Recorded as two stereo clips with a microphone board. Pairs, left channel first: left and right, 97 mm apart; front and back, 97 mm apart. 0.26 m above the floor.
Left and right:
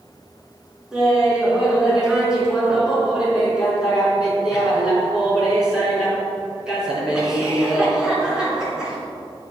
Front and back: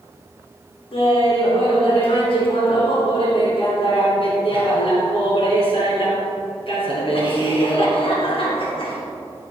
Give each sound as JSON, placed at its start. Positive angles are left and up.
{"t": 0.9, "sound": "laughter", "azimuth_deg": -10, "distance_m": 3.0}